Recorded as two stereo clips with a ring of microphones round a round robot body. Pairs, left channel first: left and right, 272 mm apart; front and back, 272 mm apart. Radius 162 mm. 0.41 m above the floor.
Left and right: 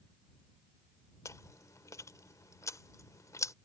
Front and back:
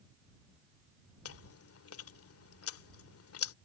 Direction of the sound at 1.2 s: 15° left.